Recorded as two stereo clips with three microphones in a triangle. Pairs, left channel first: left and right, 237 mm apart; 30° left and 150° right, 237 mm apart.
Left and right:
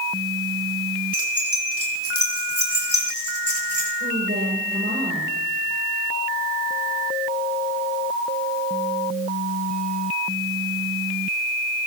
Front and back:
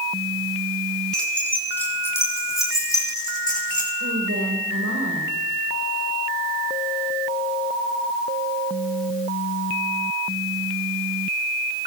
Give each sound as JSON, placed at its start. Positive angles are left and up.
{"t": 1.1, "sound": "keys jangling", "azimuth_deg": 115, "distance_m": 5.0}
{"t": 4.0, "sound": "a woman speaking", "azimuth_deg": -135, "distance_m": 7.0}